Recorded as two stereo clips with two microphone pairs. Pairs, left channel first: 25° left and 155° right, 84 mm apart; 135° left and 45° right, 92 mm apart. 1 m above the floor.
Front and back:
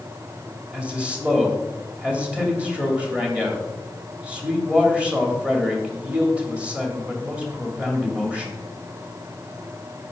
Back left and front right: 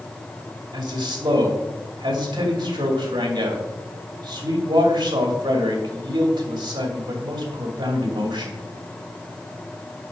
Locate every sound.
0.7 s a man speaking: 80° right, 2.5 m